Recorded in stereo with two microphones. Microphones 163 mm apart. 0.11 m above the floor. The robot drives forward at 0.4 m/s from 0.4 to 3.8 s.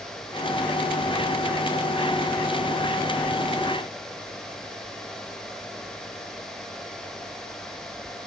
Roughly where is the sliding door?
I don't hear a sliding door.